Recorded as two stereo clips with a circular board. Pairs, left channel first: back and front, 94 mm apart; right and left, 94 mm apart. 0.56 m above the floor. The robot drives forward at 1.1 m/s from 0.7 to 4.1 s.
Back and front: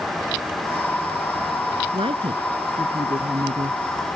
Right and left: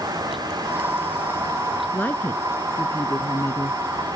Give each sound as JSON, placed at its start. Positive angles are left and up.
{"t": 1.9, "sound": "a woman speaking", "azimuth_deg": -20}